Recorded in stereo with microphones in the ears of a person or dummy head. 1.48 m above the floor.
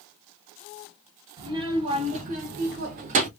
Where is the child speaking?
20° right (ahead or behind), 1.3 m; by 3.3 s 45° right (ahead or behind), 0.8 m.